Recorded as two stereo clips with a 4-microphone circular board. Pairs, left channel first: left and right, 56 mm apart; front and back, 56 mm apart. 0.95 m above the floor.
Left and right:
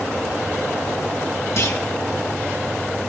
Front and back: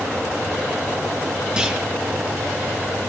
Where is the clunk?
105° left, 2 m.